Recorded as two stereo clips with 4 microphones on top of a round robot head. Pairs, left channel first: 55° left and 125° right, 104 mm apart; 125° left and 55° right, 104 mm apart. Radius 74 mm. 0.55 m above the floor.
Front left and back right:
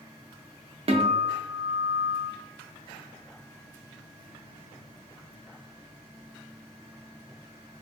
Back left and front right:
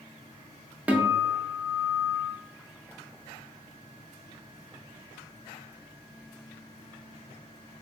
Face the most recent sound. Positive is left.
turn(degrees=-125)